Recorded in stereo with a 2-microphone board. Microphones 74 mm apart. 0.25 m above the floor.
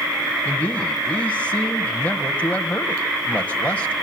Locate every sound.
0.5 s a man speaking: 20° left (ahead or behind), 1.3 m